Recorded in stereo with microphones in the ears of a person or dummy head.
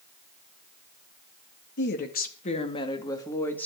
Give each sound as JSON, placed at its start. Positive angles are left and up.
{"t": 1.8, "sound": "a woman speaking", "side_deg": 65, "distance_m": 2.0}